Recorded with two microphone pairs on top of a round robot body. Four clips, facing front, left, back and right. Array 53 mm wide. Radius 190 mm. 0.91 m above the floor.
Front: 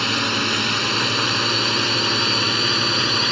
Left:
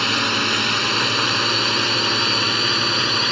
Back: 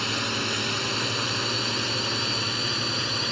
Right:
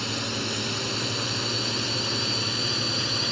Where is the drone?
60° left; by 3.3 s 50° left.